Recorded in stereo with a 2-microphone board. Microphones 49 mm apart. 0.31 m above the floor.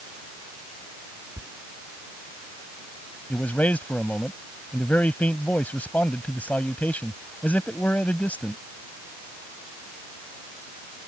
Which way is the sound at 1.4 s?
70° right (ahead or behind).